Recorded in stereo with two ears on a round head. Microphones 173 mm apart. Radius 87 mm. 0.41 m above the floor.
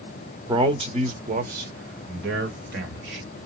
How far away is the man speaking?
About 1.0 m.